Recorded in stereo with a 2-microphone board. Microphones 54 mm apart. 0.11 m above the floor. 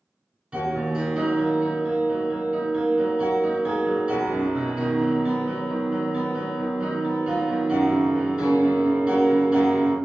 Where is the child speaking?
No child speaking in this recording.